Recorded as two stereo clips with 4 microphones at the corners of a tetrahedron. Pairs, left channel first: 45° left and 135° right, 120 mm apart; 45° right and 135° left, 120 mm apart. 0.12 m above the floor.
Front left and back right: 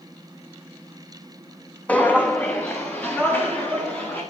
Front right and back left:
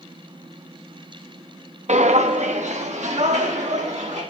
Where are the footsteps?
120° left, 0.6 m.